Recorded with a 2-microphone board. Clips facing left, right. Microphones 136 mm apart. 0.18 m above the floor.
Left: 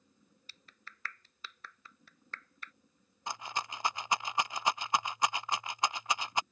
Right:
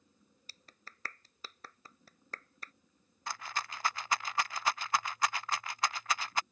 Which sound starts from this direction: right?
A clap, at 0.5 s.